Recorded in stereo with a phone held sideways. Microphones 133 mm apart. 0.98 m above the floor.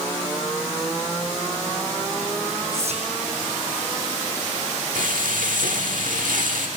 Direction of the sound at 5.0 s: 85° right.